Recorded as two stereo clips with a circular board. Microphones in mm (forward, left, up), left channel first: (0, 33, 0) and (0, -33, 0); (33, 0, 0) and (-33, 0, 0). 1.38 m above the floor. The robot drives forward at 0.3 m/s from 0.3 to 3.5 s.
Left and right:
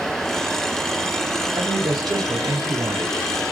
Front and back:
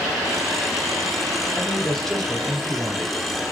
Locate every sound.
1.6 s a man speaking: 75° right, 1.3 m; by 3.2 s 95° right, 1.3 m